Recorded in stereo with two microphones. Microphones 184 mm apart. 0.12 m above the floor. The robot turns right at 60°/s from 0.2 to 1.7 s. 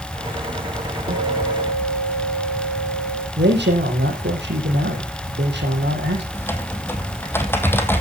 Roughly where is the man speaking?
Right.